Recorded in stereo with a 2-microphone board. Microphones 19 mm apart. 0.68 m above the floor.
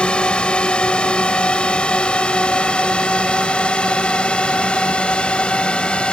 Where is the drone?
65° left (ahead or behind); by 6.1 s 70° left (ahead or behind).